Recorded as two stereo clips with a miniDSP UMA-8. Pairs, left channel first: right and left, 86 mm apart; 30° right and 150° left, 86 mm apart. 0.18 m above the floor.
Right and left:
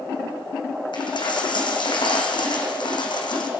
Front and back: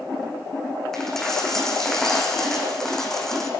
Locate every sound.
0.9 s a dropped coin: 115° right, 3.5 m